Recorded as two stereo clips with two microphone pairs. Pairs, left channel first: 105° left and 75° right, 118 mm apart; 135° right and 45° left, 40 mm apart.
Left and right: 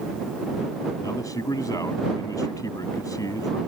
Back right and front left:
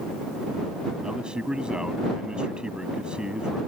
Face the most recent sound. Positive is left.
turn(degrees=85)